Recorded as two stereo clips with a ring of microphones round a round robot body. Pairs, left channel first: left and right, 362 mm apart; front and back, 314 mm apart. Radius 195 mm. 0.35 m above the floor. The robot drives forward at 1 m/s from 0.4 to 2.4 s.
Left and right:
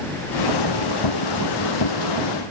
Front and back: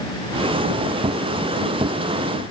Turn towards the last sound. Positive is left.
No sound to turn to.